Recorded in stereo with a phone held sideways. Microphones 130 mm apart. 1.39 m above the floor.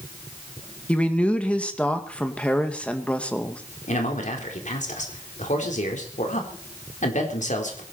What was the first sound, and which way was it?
A man speaking, 10° left (ahead or behind).